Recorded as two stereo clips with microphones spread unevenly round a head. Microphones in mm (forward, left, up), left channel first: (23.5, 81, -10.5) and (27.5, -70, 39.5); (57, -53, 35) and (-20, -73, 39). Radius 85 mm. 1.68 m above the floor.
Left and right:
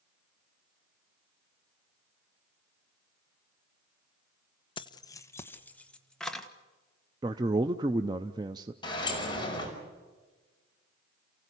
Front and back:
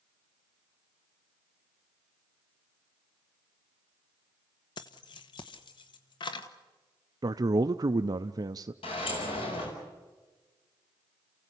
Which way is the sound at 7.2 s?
135° right.